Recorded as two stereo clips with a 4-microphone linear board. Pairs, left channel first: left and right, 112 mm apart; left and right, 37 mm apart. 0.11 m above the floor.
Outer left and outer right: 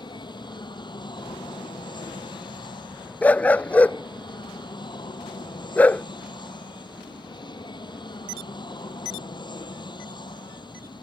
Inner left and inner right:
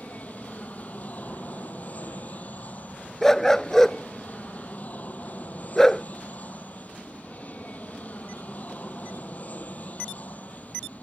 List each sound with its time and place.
0.0 s an aircraft: 40° left (ahead or behind)
3.2 s a dog barking: 15° left (ahead or behind)